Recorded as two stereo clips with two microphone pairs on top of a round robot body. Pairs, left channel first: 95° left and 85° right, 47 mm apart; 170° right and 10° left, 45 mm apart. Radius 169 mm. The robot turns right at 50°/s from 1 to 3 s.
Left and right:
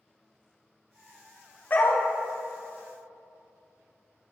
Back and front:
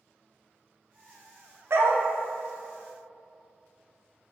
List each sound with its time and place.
1.7 s a dog barking: 40° left, 0.8 m; by 2.0 s 55° left, 0.8 m